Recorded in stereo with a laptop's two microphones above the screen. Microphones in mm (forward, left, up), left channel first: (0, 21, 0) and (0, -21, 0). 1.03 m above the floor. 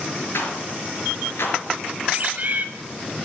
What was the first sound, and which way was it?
A rattle, 70° left (ahead or behind).